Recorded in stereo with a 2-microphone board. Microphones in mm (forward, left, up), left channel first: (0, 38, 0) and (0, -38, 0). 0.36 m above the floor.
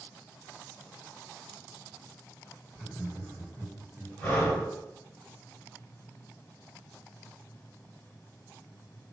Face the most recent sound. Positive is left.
turn(degrees=20)  # may be behind; listen again after turning